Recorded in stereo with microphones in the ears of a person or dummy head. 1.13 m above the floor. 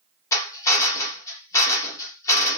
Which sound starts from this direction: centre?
A drill, at 0.3 s.